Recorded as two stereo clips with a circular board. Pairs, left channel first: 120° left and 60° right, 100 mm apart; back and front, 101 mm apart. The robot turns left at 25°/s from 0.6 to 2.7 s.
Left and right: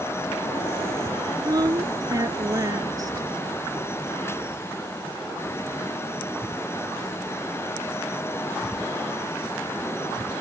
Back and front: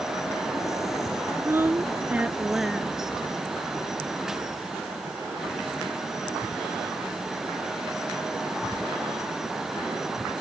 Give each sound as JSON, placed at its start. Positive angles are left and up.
{"t": 1.4, "sound": "a woman speaking", "azimuth_deg": -50}